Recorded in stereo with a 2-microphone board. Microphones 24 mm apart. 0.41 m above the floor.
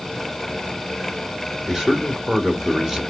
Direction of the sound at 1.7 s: 20° right (ahead or behind).